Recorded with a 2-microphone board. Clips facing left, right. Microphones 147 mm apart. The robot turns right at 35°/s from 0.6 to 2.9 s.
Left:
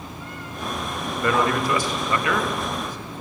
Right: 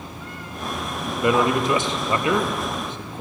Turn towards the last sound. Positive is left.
turn(degrees=-25)  # may be behind; listen again after turning